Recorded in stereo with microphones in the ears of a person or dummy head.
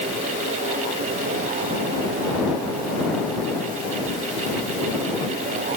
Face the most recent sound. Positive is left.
No sound to turn to.